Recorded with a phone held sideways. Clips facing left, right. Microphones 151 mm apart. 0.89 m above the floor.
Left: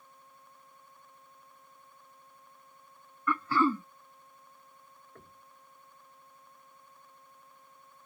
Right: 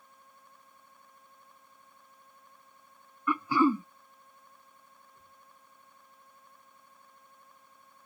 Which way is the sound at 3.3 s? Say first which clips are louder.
Right 2 dB; 15° right (ahead or behind).